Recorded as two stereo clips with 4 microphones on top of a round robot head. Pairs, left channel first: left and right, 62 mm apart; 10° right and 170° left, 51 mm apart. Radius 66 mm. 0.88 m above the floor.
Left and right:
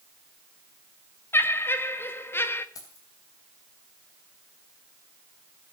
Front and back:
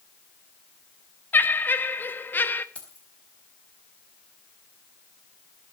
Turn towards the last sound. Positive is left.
turn(degrees=55)